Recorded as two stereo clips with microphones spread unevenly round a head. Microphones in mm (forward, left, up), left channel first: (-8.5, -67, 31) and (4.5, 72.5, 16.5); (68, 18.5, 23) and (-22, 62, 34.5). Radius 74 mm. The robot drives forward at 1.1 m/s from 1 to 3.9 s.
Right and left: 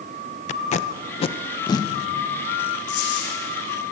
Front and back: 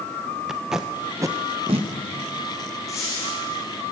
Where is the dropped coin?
95° right, 7.5 m; by 3.3 s 100° right, 7.5 m.